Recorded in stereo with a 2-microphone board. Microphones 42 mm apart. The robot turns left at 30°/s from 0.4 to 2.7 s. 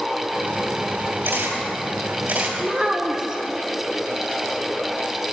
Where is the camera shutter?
85° right, 1.6 m; by 2.5 s 55° right (ahead or behind), 1.6 m.